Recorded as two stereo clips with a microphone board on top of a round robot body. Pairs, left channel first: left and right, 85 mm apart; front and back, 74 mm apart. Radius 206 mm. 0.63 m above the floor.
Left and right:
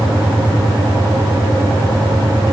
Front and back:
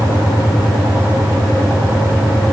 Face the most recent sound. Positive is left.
No sound to turn to.